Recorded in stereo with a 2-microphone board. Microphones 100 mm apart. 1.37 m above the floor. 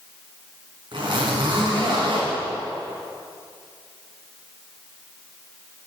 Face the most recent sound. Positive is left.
turn(degrees=-55)  # may be behind; listen again after turning